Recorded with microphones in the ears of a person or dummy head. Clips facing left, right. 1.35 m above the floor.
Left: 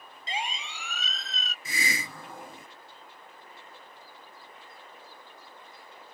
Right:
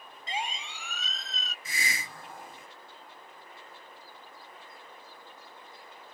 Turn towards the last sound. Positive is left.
turn(degrees=65)  # may be behind; listen again after turning